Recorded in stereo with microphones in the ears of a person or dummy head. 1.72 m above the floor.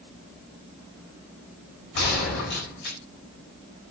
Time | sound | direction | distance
1.9 | a gunshot | 60° left (ahead or behind) | 4.5 m